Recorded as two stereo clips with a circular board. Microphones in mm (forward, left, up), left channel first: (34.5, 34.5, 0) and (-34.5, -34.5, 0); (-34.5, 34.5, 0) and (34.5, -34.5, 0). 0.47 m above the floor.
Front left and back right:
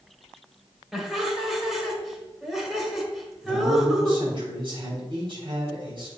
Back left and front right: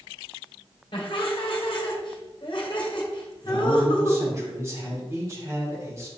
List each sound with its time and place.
0.9 s laughter: 140° left, 1.7 m
3.4 s a man speaking: 105° right, 3.5 m